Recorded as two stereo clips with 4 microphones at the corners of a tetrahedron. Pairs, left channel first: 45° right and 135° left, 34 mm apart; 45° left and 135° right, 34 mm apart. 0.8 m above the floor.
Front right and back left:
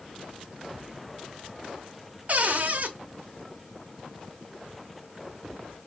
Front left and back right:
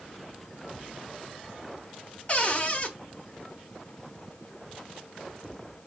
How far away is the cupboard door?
About 0.9 m.